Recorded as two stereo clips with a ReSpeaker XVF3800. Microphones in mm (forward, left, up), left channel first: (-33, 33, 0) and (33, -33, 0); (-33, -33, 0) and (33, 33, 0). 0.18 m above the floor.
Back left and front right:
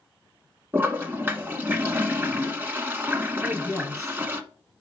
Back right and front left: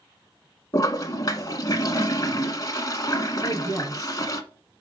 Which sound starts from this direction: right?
A toilet flushing, at 0.7 s.